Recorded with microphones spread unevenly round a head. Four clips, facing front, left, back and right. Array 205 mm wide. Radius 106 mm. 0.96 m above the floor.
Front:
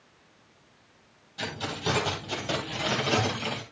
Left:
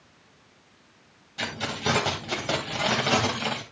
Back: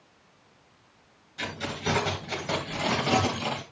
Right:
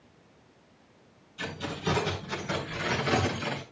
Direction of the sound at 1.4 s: 85° left.